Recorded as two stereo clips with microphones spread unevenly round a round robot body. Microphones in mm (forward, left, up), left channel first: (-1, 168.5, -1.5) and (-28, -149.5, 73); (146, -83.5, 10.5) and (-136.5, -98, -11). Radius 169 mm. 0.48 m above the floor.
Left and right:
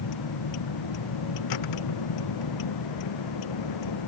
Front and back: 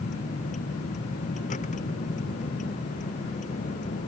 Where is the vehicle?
75° left.